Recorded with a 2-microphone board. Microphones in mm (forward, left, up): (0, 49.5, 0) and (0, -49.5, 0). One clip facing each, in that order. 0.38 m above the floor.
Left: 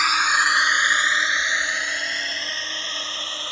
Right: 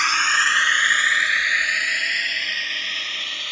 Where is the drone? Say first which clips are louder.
Left 1 dB; 5° left (ahead or behind); by 3.5 s 30° left (ahead or behind).